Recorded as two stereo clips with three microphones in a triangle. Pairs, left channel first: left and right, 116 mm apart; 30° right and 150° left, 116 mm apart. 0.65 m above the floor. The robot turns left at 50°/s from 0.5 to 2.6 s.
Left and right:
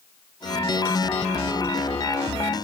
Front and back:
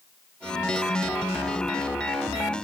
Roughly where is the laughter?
I don't hear laughter.